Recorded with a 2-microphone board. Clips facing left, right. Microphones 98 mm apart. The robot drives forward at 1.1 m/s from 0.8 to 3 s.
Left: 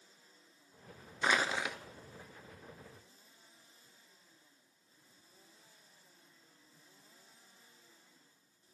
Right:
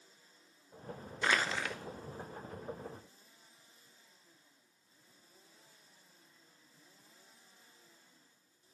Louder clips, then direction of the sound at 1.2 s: Left 1 dB; 15° left (ahead or behind).